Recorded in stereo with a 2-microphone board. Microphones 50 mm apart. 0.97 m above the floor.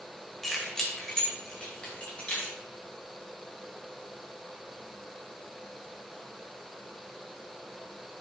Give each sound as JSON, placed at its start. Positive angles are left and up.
{"t": 0.4, "sound": "keys jangling", "side_deg": 5, "distance_m": 2.5}